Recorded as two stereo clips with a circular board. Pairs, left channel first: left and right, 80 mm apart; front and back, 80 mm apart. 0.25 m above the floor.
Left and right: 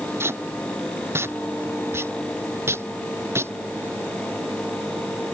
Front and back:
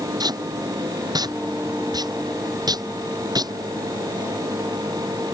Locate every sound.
0.2 s tape being pulled: 150° right